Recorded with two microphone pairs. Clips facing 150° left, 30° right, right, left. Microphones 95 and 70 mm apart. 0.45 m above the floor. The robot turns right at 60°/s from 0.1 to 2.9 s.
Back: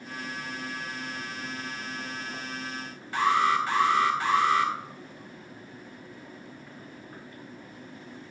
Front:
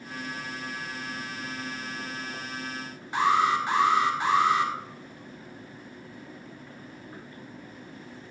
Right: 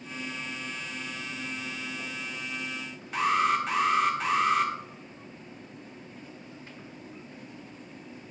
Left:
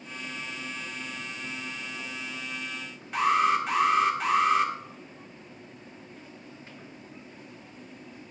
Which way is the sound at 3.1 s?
Straight ahead.